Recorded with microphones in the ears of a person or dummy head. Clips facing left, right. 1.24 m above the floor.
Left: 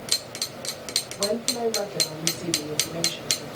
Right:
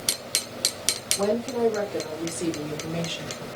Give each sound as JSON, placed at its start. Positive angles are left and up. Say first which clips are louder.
{"t": 1.1, "sound": "a woman speaking", "louder": "right 3 dB", "side_deg": -75, "distance_m": 3.0}